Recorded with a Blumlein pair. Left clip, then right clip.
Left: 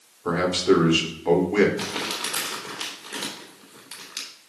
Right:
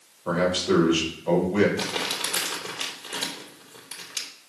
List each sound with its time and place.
0.2 s a man speaking: 40° left, 4 m
1.8 s crumpling: straight ahead, 3 m